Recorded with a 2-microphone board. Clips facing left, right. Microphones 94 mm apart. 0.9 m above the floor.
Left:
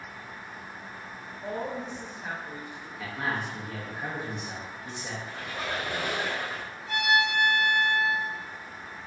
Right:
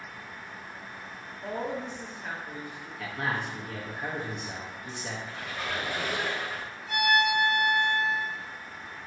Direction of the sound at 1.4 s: Centre (ahead or behind).